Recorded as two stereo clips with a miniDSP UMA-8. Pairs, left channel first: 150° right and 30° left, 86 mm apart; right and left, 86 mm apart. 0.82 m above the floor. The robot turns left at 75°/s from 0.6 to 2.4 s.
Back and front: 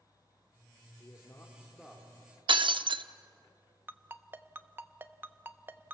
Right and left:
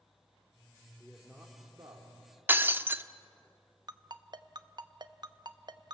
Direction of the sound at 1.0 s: 175° right.